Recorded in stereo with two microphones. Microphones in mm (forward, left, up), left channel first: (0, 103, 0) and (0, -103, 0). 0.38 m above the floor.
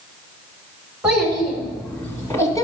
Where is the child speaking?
5° right (ahead or behind), 3 m; by 2.6 s 15° left (ahead or behind), 2.5 m.